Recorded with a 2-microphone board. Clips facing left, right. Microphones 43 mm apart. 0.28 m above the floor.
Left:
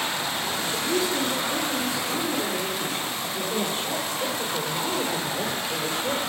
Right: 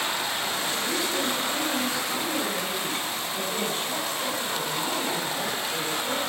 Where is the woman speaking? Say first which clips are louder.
Left 2 dB; 5° left (ahead or behind), 8 m; by 6.2 s 20° left (ahead or behind), 5 m.